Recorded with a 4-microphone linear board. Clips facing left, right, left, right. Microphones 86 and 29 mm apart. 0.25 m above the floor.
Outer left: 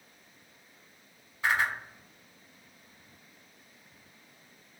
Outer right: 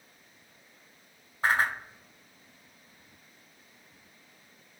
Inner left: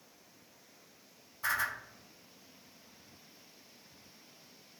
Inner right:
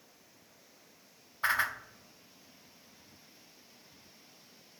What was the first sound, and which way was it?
A whoosh, 40° right (ahead or behind).